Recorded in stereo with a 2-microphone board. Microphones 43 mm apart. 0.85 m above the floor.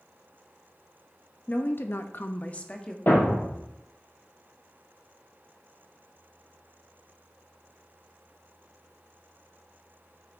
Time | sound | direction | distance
1.5 | a woman speaking | 40° left (ahead or behind) | 1.0 m
3.1 | a thud | 50° left (ahead or behind) | 3.5 m